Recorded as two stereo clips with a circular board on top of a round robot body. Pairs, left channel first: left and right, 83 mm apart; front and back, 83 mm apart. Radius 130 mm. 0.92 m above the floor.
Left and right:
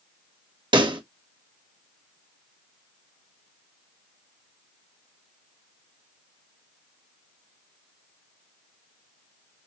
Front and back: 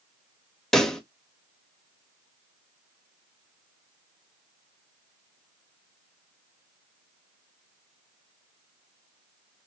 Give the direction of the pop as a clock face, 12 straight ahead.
3 o'clock.